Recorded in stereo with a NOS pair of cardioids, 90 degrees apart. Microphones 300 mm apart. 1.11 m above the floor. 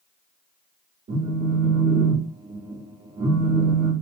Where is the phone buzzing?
35° right, 1.3 m.